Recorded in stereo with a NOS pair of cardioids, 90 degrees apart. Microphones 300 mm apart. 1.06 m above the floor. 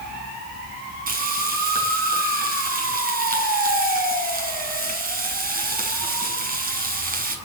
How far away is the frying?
About 7 m.